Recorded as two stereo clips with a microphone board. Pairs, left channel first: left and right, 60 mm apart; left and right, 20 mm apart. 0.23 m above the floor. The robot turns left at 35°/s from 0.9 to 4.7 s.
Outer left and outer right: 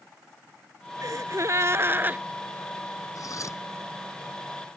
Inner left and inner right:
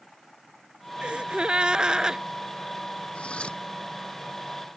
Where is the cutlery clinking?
70° left (ahead or behind); by 3.6 s 55° left (ahead or behind).